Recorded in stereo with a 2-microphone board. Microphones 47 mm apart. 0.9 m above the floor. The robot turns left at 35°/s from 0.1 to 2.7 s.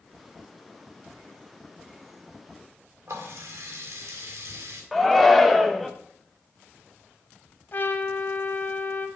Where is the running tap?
75° right (ahead or behind), 2.0 m.